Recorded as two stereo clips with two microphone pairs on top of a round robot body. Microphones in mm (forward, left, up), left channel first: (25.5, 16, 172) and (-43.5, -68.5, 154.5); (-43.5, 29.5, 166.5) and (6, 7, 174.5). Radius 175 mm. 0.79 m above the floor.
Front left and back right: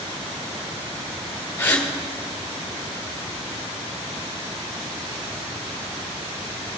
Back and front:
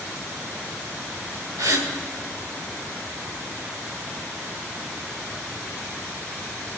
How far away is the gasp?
About 2.0 m.